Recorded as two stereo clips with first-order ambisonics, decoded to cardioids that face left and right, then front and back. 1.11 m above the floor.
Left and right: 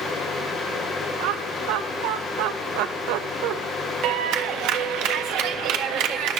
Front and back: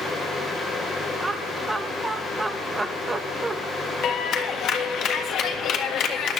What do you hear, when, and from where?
1.2 s laughter: 100° right, 1.2 m
4.0 s a clap: 55° right, 1.7 m